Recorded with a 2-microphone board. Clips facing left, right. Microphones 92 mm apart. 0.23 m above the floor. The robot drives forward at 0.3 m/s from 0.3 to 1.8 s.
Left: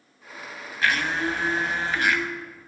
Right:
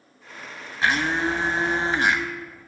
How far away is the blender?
About 0.7 m.